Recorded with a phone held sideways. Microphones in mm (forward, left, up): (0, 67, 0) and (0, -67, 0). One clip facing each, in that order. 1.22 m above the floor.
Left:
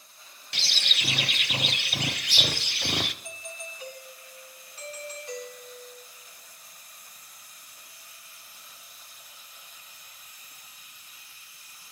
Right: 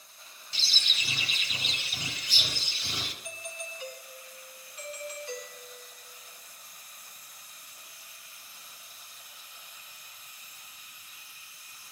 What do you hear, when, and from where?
0.5 s a bird: 70° left (ahead or behind), 0.6 m
3.2 s a doorbell: 35° left (ahead or behind), 4.5 m